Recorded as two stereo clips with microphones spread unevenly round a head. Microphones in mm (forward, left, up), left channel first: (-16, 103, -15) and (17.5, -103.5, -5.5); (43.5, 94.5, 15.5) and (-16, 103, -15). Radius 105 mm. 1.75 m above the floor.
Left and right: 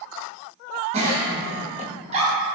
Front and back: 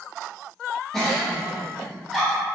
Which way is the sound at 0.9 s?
45° right.